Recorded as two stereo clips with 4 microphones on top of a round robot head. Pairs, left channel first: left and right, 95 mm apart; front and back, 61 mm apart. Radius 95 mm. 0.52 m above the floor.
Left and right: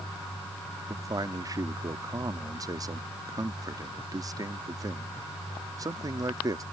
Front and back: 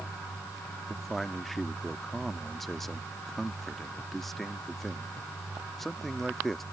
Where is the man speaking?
85° right.